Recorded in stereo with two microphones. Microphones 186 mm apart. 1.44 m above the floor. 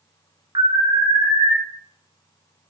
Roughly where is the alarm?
Right.